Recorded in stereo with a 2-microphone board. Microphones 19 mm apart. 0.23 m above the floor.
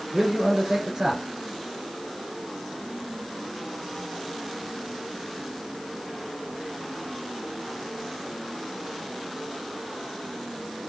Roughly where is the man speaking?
Centre.